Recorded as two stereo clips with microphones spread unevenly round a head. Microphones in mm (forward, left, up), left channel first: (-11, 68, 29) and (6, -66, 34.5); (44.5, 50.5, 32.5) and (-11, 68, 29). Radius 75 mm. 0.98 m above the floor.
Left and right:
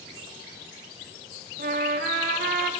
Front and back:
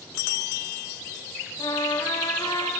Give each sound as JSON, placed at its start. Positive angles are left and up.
{"t": 1.6, "sound": "a trumpet", "azimuth_deg": -60, "distance_m": 1.6}